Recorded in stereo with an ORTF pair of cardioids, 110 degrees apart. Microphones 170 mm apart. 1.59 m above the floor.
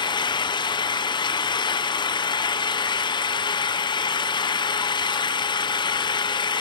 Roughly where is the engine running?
Ahead left.